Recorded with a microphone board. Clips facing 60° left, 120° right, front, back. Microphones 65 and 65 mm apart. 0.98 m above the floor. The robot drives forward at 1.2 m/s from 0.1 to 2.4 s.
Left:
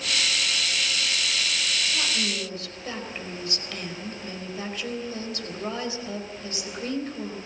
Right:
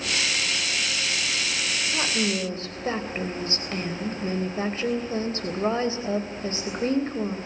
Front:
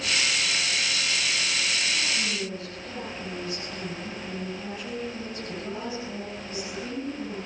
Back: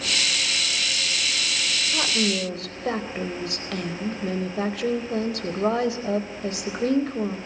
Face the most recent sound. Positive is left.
turn(degrees=-175)